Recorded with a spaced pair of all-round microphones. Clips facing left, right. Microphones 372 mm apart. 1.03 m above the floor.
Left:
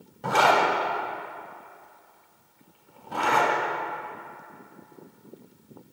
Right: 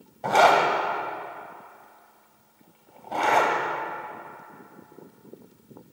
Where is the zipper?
20° left (ahead or behind), 2.5 m.